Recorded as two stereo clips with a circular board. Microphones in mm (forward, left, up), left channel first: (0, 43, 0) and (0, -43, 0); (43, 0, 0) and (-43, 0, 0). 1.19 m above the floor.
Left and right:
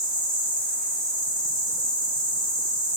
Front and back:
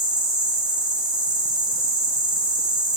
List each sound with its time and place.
0.0 s an insect: 100° right, 1.4 m